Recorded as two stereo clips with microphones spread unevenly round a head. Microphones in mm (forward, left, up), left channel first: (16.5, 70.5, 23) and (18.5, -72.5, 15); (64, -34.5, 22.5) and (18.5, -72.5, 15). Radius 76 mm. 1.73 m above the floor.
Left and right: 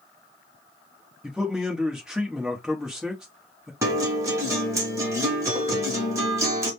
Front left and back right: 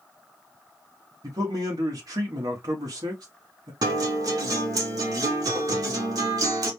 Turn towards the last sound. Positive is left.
turn(degrees=-160)